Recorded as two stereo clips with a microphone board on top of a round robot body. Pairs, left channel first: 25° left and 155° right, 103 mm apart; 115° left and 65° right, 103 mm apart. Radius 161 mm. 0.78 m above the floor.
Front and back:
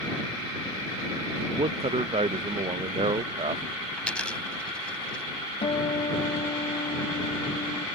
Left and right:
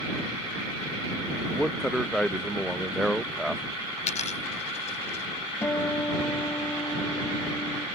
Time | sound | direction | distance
1.5 | a man speaking | 160° right | ?
4.0 | a dropped coin | 105° left | ?
5.6 | a guitar | 50° left | ?